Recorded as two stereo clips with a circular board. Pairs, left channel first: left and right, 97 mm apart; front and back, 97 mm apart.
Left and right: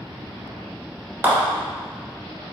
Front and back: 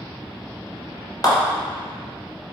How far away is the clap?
About 1.6 m.